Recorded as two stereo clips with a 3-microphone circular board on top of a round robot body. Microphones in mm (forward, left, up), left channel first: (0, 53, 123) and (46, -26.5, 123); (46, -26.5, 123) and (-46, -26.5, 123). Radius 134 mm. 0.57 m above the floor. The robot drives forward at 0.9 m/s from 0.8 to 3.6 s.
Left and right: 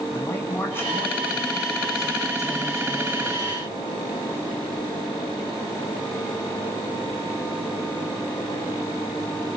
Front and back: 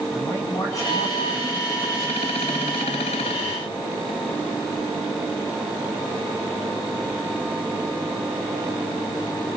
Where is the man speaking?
55° left, 7 m; by 3.6 s 75° left, 5.5 m.